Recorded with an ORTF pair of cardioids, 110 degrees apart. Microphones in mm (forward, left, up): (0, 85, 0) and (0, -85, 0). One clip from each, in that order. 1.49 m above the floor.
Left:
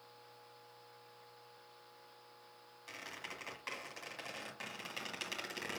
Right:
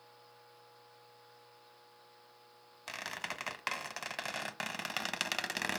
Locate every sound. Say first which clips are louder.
2.9 s a squeak: right 7 dB; 65° right, 1.3 m